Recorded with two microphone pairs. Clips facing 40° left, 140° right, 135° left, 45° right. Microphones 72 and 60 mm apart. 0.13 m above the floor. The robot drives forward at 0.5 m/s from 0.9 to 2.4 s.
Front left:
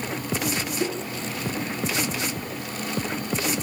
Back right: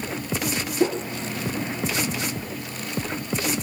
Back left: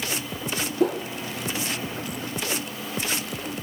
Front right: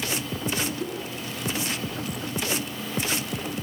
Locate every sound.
0.8 s a whoosh: 160° left, 3 m; by 1.0 s 165° left, 3 m